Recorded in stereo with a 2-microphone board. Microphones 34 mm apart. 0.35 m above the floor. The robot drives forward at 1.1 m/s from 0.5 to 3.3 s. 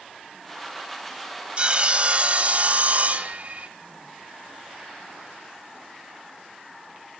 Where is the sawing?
35° right (ahead or behind), 2.5 m; by 3.7 s 45° right (ahead or behind), 1.9 m.